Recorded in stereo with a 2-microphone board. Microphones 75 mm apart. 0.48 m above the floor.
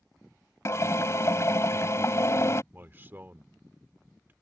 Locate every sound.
0.7 s a drill: 40° left (ahead or behind)
2.7 s a man speaking: 30° right (ahead or behind)